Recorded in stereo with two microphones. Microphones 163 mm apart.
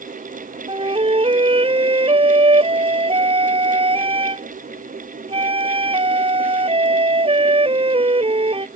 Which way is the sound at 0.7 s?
35° right (ahead or behind).